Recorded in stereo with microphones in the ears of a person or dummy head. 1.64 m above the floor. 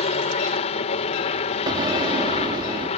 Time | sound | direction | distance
0.0 | a helicopter | 35° left (ahead or behind) | ?
1.7 | an explosion | 25° right (ahead or behind) | ?